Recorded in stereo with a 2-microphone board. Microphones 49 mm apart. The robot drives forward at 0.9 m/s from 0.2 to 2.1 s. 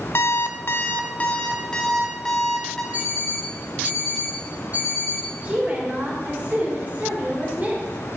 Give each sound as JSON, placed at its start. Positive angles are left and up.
{"t": 0.1, "sound": "an alarm clock", "side_deg": 50, "distance_m": 0.5}
{"t": 2.9, "sound": "an alarm clock", "side_deg": -35, "distance_m": 5.0}
{"t": 5.4, "sound": "a woman speaking", "side_deg": -35, "distance_m": 3.5}